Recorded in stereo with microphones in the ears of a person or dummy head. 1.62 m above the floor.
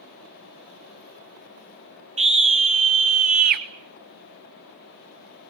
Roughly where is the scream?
Right.